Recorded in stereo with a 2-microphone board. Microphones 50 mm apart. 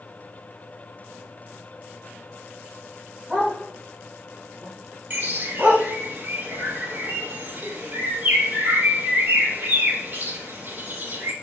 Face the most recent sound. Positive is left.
turn(degrees=-40)  # may be behind; listen again after turning